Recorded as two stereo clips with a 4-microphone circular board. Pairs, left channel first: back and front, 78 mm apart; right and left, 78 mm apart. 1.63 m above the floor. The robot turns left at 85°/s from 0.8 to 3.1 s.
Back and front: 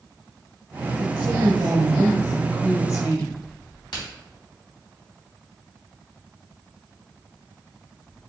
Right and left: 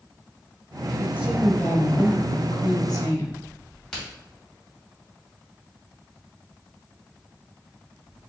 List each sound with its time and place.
1.0 s a woman speaking: 35° left, 1.2 m; by 3.4 s 145° right, 1.2 m
3.9 s a crack: 170° right, 2.5 m